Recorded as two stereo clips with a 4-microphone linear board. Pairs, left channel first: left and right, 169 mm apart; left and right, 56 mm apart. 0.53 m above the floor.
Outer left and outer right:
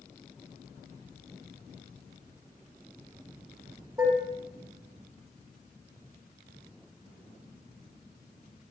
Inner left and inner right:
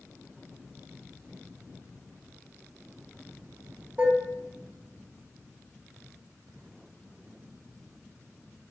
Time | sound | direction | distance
4.0 | dishes clattering | 20° right (ahead or behind) | 1.1 m